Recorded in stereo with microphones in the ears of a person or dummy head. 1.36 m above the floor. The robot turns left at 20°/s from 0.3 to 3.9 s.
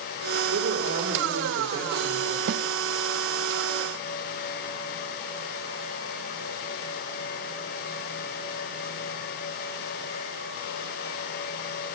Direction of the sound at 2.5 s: 70° right (ahead or behind).